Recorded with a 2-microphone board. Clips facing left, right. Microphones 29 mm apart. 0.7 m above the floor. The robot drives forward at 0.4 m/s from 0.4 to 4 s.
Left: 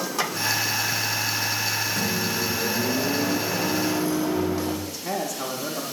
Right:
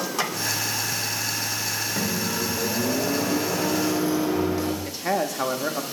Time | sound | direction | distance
2.0 | a microwave | 35° right (ahead or behind) | 1.6 m
4.8 | a man speaking | 45° right (ahead or behind) | 0.8 m